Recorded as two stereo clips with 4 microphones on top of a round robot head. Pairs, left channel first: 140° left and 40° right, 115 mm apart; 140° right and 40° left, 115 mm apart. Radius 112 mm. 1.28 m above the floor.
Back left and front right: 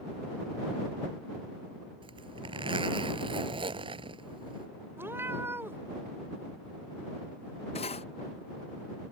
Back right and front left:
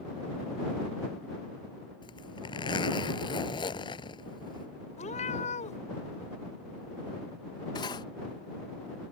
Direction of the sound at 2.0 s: 90° right.